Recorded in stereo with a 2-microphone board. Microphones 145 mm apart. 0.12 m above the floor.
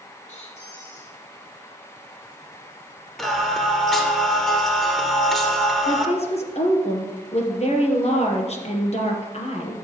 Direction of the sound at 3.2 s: Centre (ahead or behind).